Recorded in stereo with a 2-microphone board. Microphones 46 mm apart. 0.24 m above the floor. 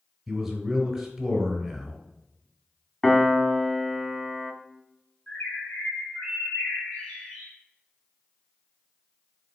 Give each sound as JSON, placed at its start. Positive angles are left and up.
{"t": 0.3, "sound": "a man speaking", "side_deg": -15, "distance_m": 1.2}
{"t": 3.0, "sound": "a piano", "side_deg": 10, "distance_m": 0.5}
{"t": 5.3, "sound": "a bird", "side_deg": 25, "distance_m": 1.8}